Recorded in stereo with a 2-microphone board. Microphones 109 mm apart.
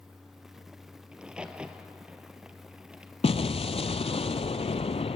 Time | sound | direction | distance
1.1 | a crack | 10° right (ahead or behind) | 1.2 m
3.2 | an explosion | 65° left (ahead or behind) | 0.5 m